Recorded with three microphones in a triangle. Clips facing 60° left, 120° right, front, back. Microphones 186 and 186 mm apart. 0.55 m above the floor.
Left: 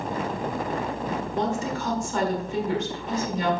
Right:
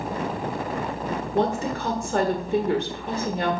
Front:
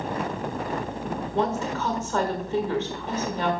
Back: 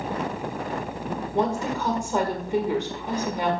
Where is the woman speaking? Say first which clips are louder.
Right 5 dB, back 2 dB; 105° right, 1.4 m.